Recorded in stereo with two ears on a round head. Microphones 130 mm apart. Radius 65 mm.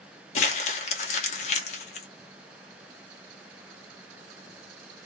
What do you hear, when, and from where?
0.3 s crumpling: 50° left (ahead or behind), 0.8 m